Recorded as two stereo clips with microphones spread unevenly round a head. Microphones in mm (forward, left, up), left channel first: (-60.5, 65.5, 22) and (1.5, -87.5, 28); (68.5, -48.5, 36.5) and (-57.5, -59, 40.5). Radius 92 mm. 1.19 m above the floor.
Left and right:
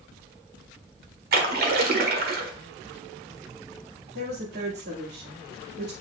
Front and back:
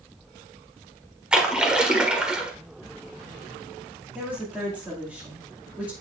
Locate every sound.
1.3 s a splash: 95° right, 1.5 m
4.2 s a woman speaking: 95° right, 2.5 m